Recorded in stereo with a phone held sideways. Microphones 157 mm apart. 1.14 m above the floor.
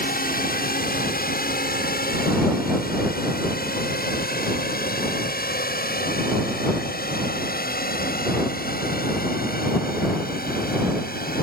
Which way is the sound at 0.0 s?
70° left (ahead or behind).